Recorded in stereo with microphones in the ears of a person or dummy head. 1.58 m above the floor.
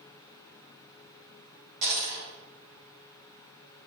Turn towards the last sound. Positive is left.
turn(degrees=-40)  # may be behind; listen again after turning